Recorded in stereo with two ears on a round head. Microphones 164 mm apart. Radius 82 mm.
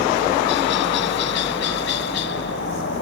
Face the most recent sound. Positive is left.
turn(degrees=70)  # may be behind; listen again after turning